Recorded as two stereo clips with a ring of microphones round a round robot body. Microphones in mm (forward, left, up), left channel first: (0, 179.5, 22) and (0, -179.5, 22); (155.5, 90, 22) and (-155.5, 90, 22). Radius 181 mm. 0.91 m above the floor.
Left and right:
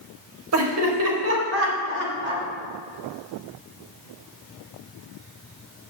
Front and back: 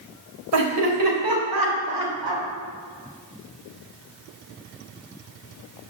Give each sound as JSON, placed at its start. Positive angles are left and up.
{"t": 0.5, "sound": "laughter", "azimuth_deg": -140, "distance_m": 4.0}